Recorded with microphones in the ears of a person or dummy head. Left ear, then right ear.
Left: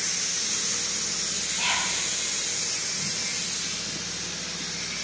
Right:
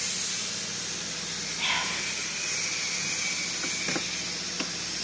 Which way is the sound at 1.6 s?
60° left (ahead or behind).